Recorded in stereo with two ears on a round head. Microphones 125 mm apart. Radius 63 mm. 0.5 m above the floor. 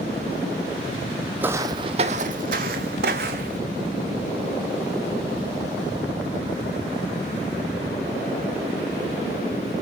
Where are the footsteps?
15° right (ahead or behind), 1.0 m; by 3.6 s 75° right (ahead or behind), 2 m.